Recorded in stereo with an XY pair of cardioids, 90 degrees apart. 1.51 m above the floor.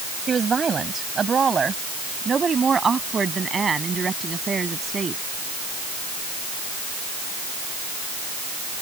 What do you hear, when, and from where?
0.3 s a woman speaking: 45° right; by 5.2 s 40° right